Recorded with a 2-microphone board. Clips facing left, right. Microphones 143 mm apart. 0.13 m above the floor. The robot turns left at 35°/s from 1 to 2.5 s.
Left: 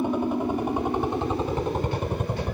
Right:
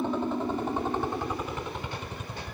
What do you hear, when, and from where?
0.0 s a helicopter: 10° left (ahead or behind); by 2.5 s 65° left (ahead or behind)